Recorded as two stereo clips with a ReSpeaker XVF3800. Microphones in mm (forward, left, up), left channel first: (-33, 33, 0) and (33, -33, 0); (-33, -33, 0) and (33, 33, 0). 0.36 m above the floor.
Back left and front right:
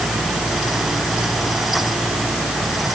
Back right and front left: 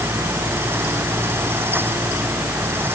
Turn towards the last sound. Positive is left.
No sound to turn to.